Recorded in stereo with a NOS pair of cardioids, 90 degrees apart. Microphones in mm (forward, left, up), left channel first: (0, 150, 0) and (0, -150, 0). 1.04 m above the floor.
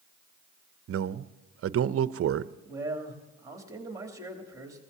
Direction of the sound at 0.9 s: 50° right.